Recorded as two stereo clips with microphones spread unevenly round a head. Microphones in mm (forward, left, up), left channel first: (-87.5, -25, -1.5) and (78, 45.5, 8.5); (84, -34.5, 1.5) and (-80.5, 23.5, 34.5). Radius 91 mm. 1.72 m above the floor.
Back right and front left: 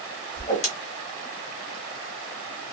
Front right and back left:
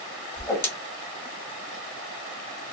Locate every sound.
0.4 s a whoosh: 100° right, 0.9 m